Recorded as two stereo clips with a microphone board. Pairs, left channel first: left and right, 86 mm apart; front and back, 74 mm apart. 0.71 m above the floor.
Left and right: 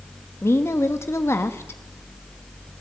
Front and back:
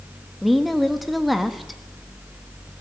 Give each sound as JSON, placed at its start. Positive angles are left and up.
{"t": 0.4, "sound": "a woman speaking", "azimuth_deg": 95, "distance_m": 1.1}